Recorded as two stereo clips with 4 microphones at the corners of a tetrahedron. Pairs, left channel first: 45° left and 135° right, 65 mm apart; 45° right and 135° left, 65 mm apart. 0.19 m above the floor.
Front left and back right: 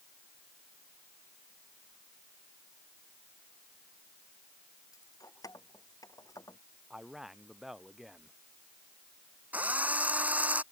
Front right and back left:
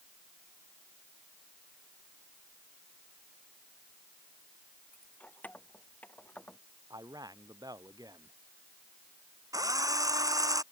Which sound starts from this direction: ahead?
Keys jangling, at 4.9 s.